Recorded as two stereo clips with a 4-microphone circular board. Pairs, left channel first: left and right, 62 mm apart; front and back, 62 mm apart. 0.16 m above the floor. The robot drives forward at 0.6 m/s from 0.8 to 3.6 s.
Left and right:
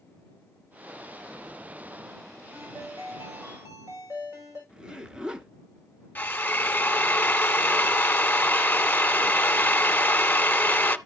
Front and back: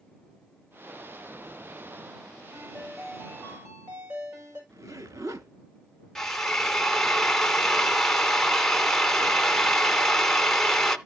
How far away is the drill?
About 0.6 m.